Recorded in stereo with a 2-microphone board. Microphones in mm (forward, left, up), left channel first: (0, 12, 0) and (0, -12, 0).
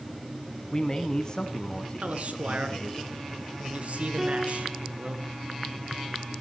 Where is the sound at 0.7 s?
30° left (ahead or behind), 1.3 m.